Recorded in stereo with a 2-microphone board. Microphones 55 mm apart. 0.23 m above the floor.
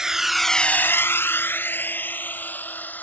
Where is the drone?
10° right (ahead or behind); by 3.0 s 30° left (ahead or behind).